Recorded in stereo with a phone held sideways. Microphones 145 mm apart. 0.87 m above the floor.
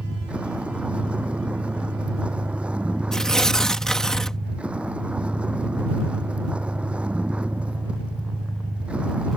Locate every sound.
0.0 s a vehicle: 10° right (ahead or behind)
3.1 s tearing paper: 5° left (ahead or behind)